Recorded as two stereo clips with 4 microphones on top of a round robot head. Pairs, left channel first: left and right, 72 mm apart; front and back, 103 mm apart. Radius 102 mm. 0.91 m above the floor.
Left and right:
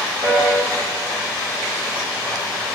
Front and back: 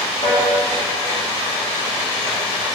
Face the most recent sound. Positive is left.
turn(degrees=-40)